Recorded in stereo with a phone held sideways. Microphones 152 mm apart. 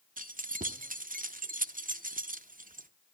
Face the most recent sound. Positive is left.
turn(degrees=-65)  # may be behind; listen again after turning